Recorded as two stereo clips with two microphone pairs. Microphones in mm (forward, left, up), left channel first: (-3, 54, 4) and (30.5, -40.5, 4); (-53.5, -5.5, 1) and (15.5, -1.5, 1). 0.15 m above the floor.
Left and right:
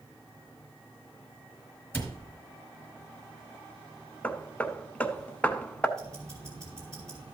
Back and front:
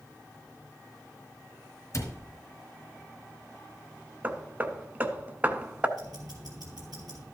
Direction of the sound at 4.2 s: 50° left.